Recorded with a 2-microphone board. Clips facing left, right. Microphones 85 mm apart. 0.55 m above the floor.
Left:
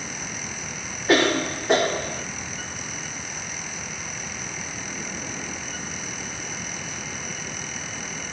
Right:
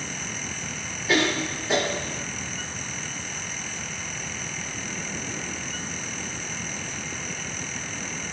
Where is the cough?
55° left (ahead or behind), 1.0 m.